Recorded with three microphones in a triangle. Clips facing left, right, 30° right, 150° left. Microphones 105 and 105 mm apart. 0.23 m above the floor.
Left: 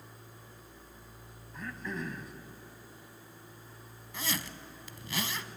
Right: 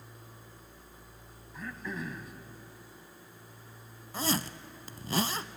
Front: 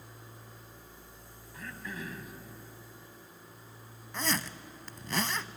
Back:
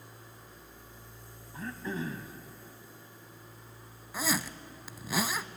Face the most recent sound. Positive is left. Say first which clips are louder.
# right 6 dB, back 1 dB
turn(degrees=-130)